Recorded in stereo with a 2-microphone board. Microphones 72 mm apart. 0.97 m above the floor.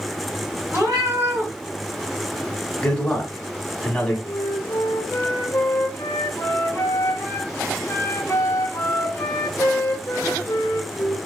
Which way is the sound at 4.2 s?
40° left (ahead or behind).